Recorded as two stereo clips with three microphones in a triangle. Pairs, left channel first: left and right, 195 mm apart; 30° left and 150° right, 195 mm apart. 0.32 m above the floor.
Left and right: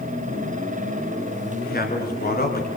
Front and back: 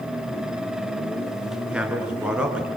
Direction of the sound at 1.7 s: 125° left.